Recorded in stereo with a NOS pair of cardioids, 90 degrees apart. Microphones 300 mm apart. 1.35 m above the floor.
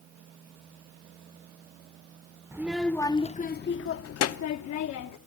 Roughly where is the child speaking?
Ahead.